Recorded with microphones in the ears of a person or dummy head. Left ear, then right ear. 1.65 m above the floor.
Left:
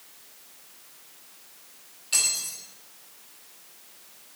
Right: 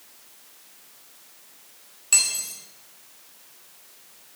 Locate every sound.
2.1 s cutlery clinking: 35° right (ahead or behind), 3 m